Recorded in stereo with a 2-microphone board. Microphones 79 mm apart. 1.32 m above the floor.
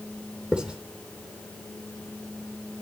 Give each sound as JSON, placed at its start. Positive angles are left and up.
{"t": 0.5, "sound": "writing", "side_deg": -10, "distance_m": 3.0}